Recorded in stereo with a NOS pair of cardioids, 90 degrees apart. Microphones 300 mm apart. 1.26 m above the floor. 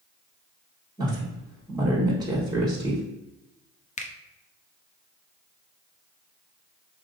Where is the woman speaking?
15° right, 1.5 m.